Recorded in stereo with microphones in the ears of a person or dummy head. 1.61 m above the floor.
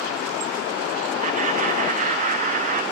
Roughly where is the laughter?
Right.